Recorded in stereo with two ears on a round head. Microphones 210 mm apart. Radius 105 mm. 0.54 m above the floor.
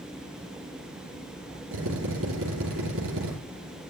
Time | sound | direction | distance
1.7 | a drill | 65° right (ahead or behind) | 7.5 m